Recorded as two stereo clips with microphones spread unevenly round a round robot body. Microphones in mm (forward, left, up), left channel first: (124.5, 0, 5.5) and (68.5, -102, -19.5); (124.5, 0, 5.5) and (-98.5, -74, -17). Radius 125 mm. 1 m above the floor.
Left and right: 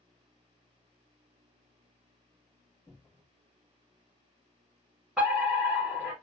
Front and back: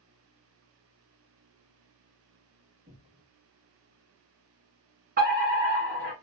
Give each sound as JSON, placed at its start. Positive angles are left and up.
{"t": 2.9, "sound": "a cupboard door", "azimuth_deg": 145, "distance_m": 1.1}
{"t": 5.2, "sound": "a fire alarm", "azimuth_deg": 165, "distance_m": 1.6}